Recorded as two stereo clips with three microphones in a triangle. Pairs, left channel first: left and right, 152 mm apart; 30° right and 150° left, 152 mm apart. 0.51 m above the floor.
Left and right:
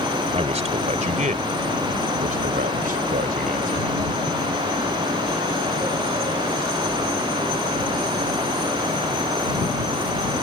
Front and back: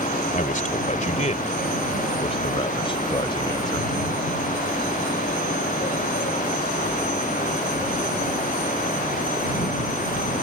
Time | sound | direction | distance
0.3 | a man speaking | 50° right | ?